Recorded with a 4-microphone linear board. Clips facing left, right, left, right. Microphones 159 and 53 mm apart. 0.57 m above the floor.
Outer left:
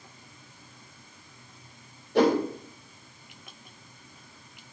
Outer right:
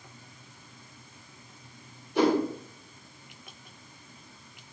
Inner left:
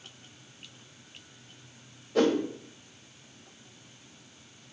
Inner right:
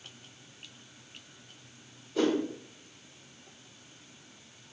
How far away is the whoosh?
About 2 m.